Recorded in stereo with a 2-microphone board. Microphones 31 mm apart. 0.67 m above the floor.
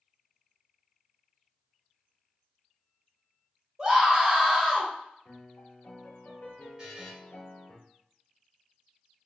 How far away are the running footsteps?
No running footsteps in this recording.